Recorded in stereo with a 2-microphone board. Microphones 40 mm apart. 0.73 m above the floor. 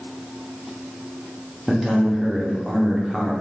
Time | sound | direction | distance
1.7 | a man speaking | 10° right (ahead or behind) | 0.7 m